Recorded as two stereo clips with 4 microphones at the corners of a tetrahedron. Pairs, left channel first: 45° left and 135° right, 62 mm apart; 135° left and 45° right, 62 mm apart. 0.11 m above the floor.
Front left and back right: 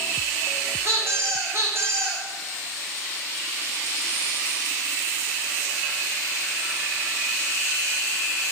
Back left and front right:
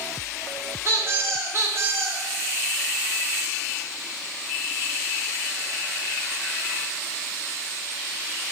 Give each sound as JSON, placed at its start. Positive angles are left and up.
{"t": 0.8, "sound": "a squeak", "azimuth_deg": -90, "distance_m": 2.0}